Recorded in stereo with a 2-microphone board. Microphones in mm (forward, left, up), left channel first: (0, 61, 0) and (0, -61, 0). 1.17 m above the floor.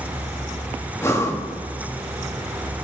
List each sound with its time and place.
1.0 s breathing: 20° left (ahead or behind), 1.1 m